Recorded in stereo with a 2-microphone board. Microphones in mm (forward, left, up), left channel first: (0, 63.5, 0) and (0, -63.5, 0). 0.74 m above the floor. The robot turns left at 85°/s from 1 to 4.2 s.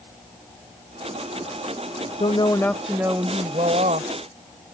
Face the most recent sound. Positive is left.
turn(degrees=-115)